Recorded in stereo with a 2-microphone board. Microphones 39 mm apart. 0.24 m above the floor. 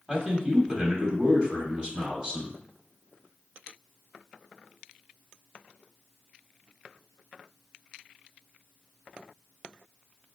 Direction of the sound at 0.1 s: 25° right (ahead or behind).